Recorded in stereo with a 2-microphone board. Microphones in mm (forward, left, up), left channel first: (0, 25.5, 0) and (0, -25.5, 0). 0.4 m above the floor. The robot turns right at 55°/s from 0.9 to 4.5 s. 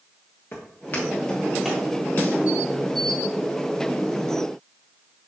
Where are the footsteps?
50° left (ahead or behind), 3 m; by 1.9 s 15° right (ahead or behind), 4.5 m.